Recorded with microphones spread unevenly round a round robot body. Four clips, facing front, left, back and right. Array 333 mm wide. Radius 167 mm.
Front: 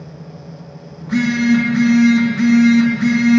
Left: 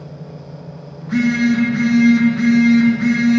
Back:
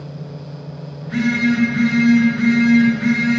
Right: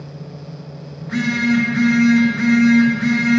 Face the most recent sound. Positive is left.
turn(degrees=35)